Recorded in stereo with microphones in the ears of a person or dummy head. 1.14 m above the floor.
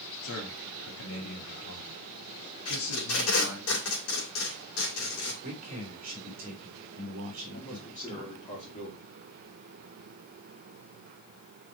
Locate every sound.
0.2 s a man speaking: 90° left, 2.5 m
2.6 s tape being pulled: 75° left (ahead or behind), 3 m
5.4 s a man speaking: 45° right (ahead or behind), 3 m
7.5 s a man speaking: 25° left (ahead or behind), 3 m